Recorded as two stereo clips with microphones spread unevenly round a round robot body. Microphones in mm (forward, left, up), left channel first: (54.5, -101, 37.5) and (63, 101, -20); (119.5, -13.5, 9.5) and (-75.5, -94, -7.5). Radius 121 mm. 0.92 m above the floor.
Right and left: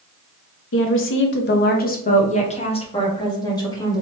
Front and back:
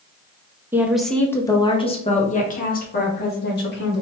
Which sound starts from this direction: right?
A woman speaking, at 0.7 s.